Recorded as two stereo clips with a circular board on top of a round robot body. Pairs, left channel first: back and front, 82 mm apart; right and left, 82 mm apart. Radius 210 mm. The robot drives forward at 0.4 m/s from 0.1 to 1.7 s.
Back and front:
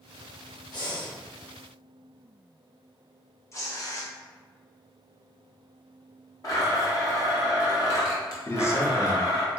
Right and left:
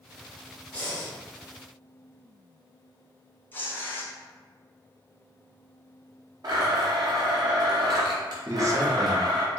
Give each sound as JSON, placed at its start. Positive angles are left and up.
{"t": 0.7, "sound": "breathing", "azimuth_deg": -160, "distance_m": 1.8}
{"t": 3.5, "sound": "tearing paper", "azimuth_deg": -145, "distance_m": 1.2}
{"t": 6.4, "sound": "a blender", "azimuth_deg": 130, "distance_m": 0.6}
{"t": 8.5, "sound": "a man speaking", "azimuth_deg": 130, "distance_m": 1.0}